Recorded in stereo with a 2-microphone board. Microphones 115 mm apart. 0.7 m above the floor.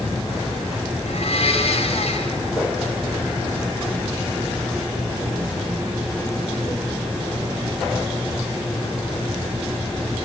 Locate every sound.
1.1 s a blender: 60° left (ahead or behind), 4.5 m